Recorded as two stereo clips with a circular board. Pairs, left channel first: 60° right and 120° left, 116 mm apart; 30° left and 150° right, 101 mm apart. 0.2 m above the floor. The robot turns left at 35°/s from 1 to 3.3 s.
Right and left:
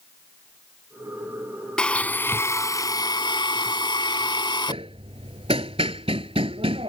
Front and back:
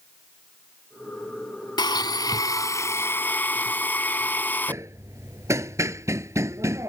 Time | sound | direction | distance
1.8 | a blender | 20° left | ?
4.7 | hammering | 150° left | ?